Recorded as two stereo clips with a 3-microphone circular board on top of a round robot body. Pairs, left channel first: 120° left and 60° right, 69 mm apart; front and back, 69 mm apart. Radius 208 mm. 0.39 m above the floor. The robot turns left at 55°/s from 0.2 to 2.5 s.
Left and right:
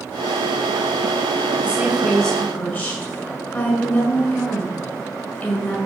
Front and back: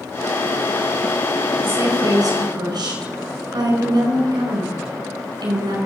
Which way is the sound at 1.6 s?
130° right.